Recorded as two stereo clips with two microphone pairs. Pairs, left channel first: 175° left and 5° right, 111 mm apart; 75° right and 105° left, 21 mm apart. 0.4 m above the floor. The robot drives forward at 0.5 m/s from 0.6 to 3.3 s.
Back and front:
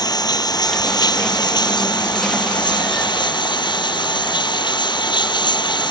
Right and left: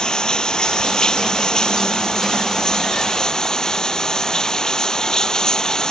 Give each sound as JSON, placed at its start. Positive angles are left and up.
{"t": 0.0, "sound": "running water", "azimuth_deg": -130}